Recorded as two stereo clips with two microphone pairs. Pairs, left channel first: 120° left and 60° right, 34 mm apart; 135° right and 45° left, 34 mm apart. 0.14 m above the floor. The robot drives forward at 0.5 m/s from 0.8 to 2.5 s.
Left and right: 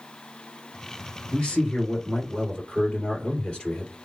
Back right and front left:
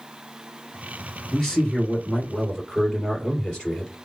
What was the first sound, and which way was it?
A man speaking, 155° left.